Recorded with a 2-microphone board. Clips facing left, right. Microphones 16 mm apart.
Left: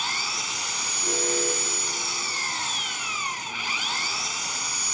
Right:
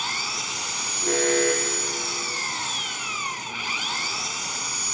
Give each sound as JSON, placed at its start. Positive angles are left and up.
{"t": 0.0, "sound": "an engine running", "side_deg": 5}
{"t": 1.0, "sound": "an alarm", "side_deg": -45}